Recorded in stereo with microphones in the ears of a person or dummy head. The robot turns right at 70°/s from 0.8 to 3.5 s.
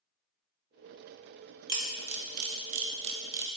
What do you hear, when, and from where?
1.7 s a camera shutter: 25° right (ahead or behind), 0.6 m; by 3.5 s 15° right (ahead or behind), 0.6 m